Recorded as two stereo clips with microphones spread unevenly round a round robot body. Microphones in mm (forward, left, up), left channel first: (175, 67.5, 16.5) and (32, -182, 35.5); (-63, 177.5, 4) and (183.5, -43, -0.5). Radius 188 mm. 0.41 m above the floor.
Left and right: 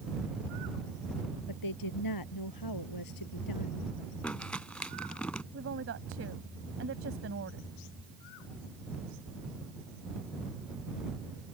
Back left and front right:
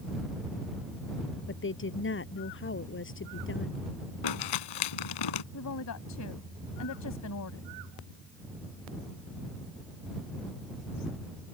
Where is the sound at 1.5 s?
85° left.